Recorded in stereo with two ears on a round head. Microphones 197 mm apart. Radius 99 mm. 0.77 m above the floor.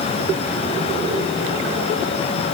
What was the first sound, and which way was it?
Only background noise.